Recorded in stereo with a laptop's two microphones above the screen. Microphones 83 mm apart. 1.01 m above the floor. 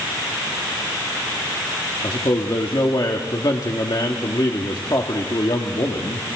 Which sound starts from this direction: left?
A man speaking, at 2.0 s.